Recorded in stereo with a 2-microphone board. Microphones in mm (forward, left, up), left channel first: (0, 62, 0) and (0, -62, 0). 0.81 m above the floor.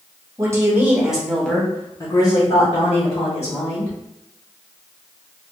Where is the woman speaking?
25° right (ahead or behind), 1.2 m; by 4.0 s 60° left (ahead or behind), 1.8 m.